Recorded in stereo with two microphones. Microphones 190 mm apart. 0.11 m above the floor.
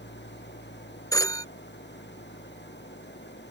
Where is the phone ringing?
20° left (ahead or behind).